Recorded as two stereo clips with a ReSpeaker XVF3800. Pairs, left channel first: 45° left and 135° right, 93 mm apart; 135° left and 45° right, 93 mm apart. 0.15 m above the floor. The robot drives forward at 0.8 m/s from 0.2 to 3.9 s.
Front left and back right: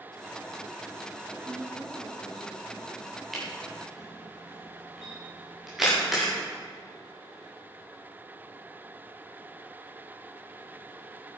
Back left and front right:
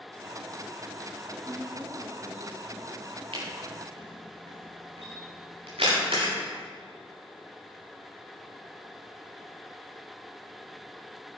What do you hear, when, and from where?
1.4 s a woman speaking: 95° right, 2.5 m; by 2.9 s 125° right, 2.5 m
3.3 s a camera shutter: 45° right, 8 m; by 6.3 s 50° right, 7.5 m